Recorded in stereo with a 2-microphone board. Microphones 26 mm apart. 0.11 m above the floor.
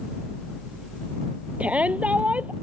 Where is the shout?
60° right (ahead or behind).